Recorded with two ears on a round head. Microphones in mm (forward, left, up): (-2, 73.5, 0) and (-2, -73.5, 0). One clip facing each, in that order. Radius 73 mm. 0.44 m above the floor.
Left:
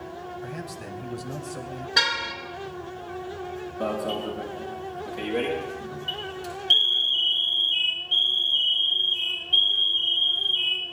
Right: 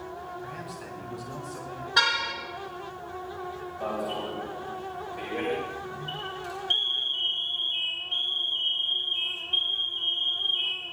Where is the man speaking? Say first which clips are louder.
Left 3 dB; 55° left (ahead or behind), 3 m.